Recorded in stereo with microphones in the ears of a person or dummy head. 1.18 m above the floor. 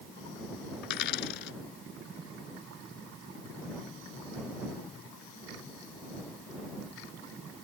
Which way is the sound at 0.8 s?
70° left (ahead or behind).